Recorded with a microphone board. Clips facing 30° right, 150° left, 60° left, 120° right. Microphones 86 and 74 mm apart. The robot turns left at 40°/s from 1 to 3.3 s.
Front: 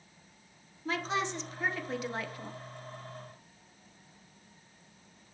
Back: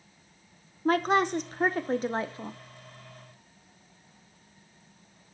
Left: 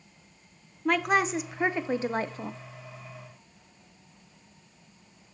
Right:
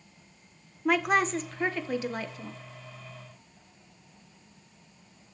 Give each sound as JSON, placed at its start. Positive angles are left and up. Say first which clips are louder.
{"t": 0.8, "sound": "a woman speaking", "louder": "back 9 dB, even", "azimuth_deg": 155, "distance_m": 0.8}